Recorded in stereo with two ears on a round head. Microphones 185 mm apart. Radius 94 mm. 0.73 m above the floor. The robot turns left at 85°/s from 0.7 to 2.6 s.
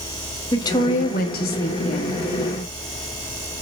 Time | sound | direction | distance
0.5 | a woman speaking | 155° left | 1.2 m